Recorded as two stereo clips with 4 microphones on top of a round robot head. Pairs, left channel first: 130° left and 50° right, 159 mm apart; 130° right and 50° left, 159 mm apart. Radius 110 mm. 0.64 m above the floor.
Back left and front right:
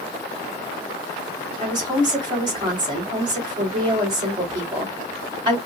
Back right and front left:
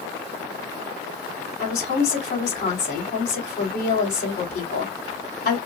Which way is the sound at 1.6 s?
110° right.